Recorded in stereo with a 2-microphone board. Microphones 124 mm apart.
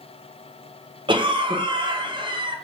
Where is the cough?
40° right (ahead or behind), 0.5 m.